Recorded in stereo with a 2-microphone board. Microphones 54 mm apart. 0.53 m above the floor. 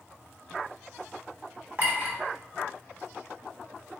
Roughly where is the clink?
Right.